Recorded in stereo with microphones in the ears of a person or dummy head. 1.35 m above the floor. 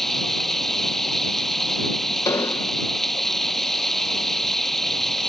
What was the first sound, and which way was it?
Running water, centre (ahead or behind).